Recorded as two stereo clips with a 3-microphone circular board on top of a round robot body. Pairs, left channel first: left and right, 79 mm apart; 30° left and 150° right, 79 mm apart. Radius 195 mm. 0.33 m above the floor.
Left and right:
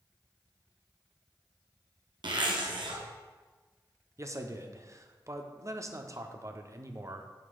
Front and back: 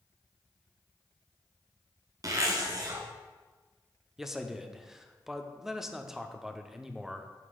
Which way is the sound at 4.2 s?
65° right.